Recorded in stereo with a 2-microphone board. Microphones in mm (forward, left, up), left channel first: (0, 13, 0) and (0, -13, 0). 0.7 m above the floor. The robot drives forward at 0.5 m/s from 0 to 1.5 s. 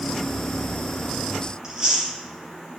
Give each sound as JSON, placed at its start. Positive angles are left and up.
{"t": 1.6, "sound": "chewing", "side_deg": -25, "distance_m": 3.5}